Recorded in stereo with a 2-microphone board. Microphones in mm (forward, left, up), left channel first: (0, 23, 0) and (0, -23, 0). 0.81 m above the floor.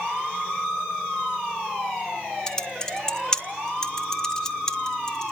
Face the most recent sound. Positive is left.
turn(degrees=15)  # may be behind; listen again after turning